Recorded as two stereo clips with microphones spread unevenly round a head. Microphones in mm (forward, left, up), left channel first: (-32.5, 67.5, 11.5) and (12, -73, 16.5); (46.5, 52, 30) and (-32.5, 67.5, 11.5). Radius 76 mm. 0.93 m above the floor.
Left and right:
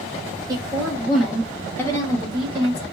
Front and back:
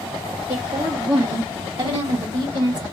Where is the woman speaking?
140° right, 1.4 m; by 2.8 s 160° left, 1.6 m.